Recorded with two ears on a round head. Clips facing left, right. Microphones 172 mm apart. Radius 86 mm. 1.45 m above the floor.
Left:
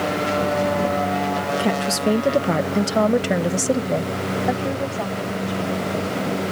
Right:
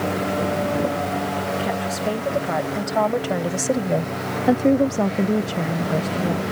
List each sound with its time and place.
1.6 s a woman speaking: 60° left (ahead or behind); by 6.4 s 80° right